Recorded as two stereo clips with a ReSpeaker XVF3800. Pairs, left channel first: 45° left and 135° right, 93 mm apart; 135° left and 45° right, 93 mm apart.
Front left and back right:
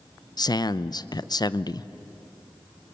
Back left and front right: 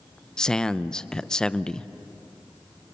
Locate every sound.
0.4 s a man speaking: 55° left, 0.5 m